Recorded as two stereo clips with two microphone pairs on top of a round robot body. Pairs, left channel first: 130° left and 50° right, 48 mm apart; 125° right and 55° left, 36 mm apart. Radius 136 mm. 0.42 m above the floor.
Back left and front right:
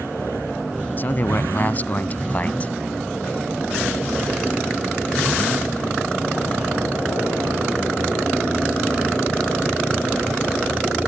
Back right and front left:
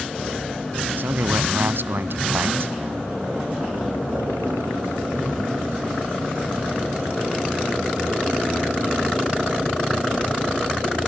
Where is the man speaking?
80° left; by 2.7 s 70° left.